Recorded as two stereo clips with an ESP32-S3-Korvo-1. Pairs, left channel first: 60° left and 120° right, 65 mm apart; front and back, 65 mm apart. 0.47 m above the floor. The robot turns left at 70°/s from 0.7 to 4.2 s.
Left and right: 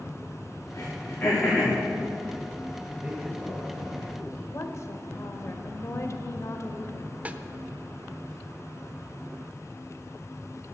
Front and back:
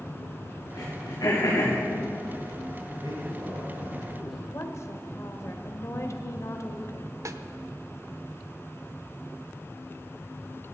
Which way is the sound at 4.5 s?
35° left.